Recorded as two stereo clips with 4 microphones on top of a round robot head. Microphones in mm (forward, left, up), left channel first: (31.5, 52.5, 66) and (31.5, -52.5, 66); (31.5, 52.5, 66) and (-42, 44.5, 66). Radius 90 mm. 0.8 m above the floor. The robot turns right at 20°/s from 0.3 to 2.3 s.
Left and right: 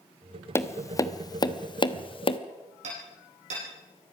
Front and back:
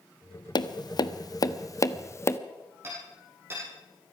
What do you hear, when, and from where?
0.6 s tapping: 25° left, 1.2 m; by 2.4 s 60° left, 1.2 m
2.8 s hammering: 110° right, 9.5 m